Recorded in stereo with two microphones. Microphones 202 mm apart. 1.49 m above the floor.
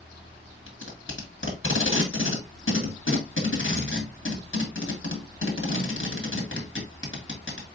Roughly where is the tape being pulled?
Left.